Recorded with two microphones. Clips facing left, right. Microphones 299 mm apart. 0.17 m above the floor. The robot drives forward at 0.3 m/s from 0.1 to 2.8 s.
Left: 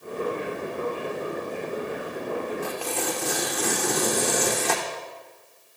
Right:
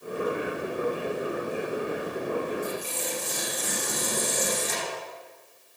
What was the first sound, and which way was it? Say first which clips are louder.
Tearing paper: left 3 dB; 75° left (ahead or behind).